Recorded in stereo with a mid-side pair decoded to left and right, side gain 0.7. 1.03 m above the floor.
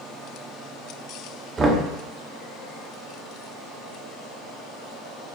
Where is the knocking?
25° right, 0.6 m.